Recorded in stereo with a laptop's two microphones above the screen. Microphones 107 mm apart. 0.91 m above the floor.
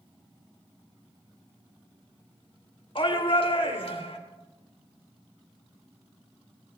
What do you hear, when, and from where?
3.0 s a shout: 60° left (ahead or behind), 3.5 m; by 4.2 s 70° left (ahead or behind), 3 m